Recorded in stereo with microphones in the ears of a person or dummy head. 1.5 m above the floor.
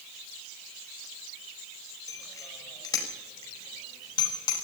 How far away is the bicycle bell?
About 4.5 m.